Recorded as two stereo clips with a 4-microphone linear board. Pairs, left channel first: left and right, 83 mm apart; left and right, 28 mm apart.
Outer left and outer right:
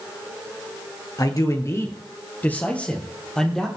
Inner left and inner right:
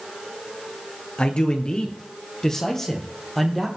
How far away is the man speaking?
About 1.9 m.